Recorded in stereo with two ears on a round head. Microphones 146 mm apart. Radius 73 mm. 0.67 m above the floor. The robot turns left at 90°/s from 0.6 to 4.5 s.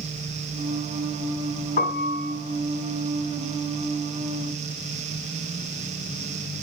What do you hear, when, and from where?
1.8 s a piano: 115° left, 2 m; by 2.4 s 65° left, 2 m